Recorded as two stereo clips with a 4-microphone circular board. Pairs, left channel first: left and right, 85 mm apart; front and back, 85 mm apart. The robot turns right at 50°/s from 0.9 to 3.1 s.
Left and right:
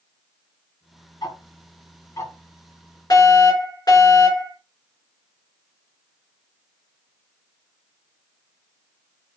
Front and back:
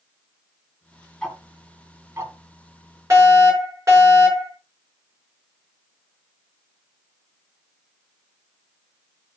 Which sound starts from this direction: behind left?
A fire alarm, at 3.1 s.